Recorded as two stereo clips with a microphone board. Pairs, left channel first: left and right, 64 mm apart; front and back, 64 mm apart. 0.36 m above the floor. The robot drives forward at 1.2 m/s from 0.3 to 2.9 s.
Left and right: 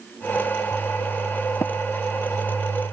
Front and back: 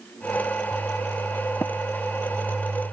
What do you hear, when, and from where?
1.6 s tapping: 50° left; by 1.7 s 55° left